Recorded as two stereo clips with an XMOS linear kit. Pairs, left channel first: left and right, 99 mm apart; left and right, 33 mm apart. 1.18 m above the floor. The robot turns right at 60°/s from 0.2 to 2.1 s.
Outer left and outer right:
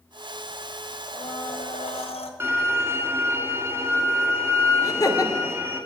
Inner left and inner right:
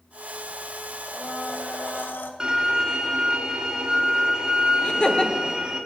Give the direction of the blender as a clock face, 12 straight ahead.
11 o'clock.